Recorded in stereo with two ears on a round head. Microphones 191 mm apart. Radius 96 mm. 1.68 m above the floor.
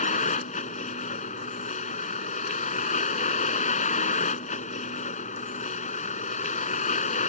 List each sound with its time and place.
0.0 s a vehicle: 35° left (ahead or behind)